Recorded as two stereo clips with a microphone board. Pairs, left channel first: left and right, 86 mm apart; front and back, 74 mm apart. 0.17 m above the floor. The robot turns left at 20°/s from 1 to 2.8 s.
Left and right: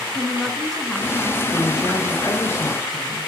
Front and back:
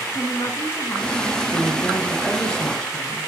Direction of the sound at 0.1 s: 5° left.